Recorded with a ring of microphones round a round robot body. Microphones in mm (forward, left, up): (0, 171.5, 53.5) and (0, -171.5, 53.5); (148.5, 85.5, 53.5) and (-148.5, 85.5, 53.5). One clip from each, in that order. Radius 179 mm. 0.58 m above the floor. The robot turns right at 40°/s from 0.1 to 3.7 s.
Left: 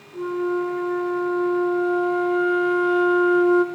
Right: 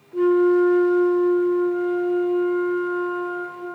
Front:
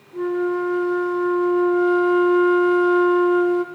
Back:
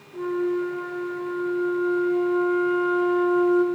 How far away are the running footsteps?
No running footsteps in this recording.